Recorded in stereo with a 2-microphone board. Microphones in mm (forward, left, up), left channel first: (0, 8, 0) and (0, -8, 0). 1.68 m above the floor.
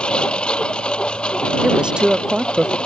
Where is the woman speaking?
70° right (ahead or behind).